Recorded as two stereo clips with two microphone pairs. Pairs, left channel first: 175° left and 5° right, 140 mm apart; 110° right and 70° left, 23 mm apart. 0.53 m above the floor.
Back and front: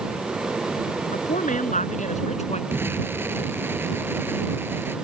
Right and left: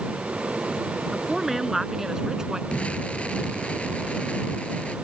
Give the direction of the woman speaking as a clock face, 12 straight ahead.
7 o'clock.